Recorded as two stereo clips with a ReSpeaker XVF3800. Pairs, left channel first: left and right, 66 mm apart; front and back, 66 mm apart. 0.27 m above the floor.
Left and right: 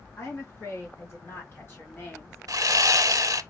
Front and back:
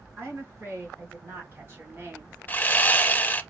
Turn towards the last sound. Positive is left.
turn(degrees=-65)